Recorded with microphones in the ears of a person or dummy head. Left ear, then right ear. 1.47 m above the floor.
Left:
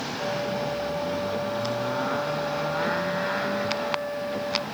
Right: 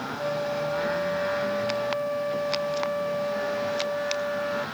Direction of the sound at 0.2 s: 85° right.